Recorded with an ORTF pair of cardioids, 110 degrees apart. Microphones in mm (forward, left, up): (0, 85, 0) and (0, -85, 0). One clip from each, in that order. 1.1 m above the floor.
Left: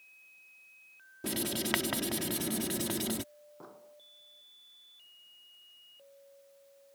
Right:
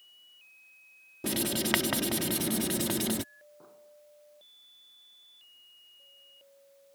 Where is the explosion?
45° left.